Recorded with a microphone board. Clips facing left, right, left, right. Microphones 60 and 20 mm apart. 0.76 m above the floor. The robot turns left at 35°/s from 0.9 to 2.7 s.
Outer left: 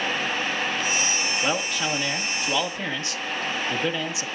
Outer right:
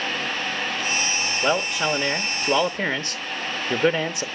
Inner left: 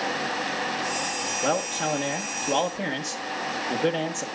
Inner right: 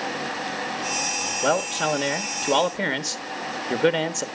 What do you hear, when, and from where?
1.4 s a man speaking: 15° right, 1.2 m; by 4.2 s 60° right, 1.2 m